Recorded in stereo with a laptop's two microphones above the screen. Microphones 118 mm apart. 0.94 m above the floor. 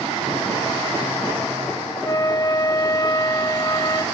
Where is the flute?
35° left (ahead or behind), 0.6 m.